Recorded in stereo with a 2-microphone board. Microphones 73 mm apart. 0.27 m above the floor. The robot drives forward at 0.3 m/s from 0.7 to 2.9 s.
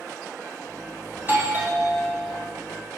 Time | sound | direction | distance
1.2 | a doorbell | 30° right (ahead or behind) | 2.5 m